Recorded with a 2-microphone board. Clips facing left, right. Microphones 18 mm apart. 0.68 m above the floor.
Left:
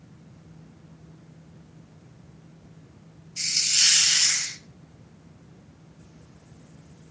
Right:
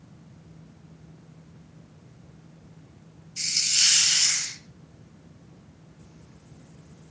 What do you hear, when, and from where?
3.4 s a hiss: 5° left (ahead or behind), 1.0 m